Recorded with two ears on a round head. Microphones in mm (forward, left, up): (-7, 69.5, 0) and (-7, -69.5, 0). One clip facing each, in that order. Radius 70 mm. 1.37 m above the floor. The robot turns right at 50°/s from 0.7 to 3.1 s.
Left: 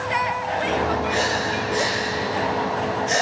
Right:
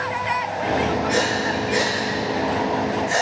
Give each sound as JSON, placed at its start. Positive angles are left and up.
{"t": 1.1, "sound": "breathing", "side_deg": -55, "distance_m": 8.5}